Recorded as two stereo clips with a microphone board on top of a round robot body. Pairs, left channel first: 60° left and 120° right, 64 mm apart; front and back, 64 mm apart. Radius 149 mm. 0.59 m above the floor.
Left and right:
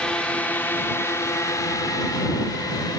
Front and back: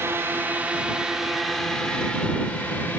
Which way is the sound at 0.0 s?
130° left.